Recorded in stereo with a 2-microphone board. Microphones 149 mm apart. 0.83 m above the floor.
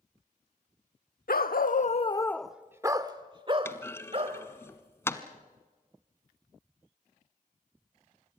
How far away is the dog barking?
About 1.0 m.